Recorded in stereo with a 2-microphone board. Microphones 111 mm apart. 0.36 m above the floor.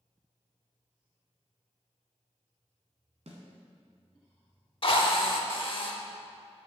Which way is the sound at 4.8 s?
50° left (ahead or behind).